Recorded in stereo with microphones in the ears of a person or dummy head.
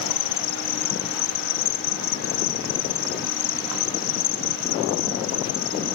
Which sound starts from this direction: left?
An insect, at 0.0 s.